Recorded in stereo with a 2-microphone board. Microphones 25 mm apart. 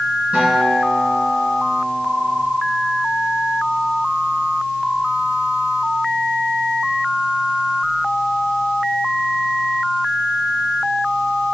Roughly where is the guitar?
Right.